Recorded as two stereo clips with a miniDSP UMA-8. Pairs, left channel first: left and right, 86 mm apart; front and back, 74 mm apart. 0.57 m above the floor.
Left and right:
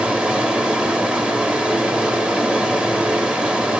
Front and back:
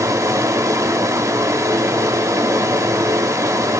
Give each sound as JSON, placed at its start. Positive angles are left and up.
{"t": 0.0, "sound": "running water", "azimuth_deg": -165, "distance_m": 0.8}